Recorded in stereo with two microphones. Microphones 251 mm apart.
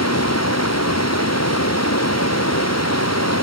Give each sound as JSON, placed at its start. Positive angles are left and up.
{"t": 0.0, "sound": "running water", "side_deg": 85}